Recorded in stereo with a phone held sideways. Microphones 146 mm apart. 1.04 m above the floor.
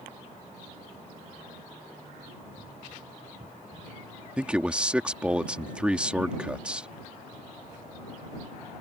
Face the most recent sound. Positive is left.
turn(degrees=-10)  # may be behind; listen again after turning